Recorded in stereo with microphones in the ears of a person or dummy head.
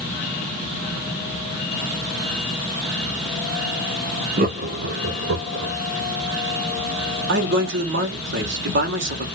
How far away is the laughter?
About 0.6 m.